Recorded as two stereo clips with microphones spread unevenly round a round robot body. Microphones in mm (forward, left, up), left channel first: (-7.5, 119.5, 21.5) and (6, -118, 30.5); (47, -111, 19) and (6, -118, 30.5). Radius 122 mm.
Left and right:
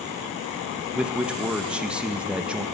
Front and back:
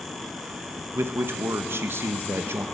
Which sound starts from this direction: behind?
A man speaking, at 0.9 s.